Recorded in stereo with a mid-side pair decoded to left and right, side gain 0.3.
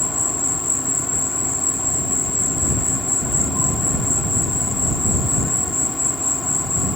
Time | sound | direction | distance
0.0 | an insect | 25° left | ?